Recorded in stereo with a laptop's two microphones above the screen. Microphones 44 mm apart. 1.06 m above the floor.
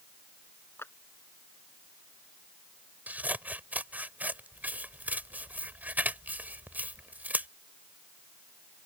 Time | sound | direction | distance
0.8 | a clap | 70° left (ahead or behind) | ?
3.1 | scissors | 40° right (ahead or behind) | ?